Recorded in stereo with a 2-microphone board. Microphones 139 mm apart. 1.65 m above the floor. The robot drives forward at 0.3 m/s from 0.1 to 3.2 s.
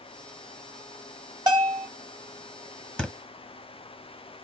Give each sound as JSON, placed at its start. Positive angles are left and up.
{"t": 1.5, "sound": "a bell", "side_deg": -35, "distance_m": 1.8}
{"t": 3.0, "sound": "a thud", "side_deg": 10, "distance_m": 1.0}